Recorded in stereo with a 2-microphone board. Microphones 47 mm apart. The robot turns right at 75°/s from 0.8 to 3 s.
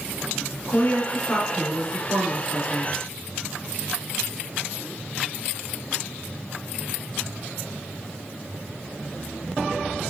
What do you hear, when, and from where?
0.7 s a woman speaking: 135° left, 1.5 m; by 2.9 s 65° right, 1.5 m